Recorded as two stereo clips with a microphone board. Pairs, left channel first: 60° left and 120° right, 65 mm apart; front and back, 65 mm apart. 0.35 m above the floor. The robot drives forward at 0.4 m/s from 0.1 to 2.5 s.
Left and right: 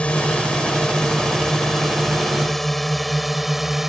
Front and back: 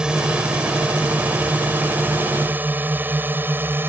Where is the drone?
115° left; by 3.9 s 160° left.